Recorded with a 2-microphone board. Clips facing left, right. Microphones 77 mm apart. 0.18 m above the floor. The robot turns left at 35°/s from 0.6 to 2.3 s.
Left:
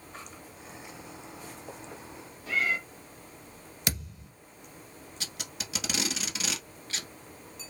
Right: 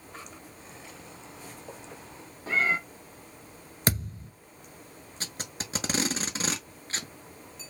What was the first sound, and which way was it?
A cat meowing, 35° right (ahead or behind).